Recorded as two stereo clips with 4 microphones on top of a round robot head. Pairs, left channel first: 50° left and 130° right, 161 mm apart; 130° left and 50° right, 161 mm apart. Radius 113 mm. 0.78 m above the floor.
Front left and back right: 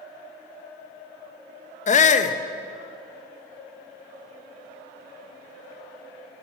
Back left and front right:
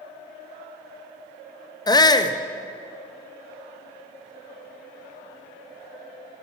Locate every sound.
1.9 s a shout: 70° left, 0.7 m